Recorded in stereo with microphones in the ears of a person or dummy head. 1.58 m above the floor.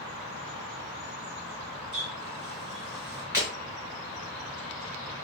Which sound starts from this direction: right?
A running tap, at 1.9 s.